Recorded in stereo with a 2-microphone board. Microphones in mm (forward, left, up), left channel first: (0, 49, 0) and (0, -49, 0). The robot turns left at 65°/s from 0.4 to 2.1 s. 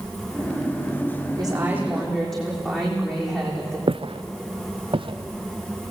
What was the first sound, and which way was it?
A woman speaking, 135° right.